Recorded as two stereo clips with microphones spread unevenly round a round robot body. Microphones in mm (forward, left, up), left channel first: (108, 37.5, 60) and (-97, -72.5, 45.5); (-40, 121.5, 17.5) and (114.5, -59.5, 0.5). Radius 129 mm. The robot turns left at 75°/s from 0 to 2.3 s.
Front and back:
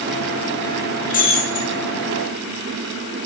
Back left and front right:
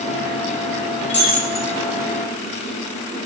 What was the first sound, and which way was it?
Breaking glass, 90° left.